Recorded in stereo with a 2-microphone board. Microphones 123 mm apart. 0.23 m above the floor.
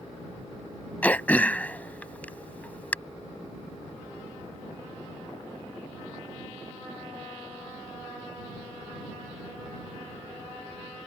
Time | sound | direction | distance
1.0 | throat clearing | 15° left (ahead or behind) | ?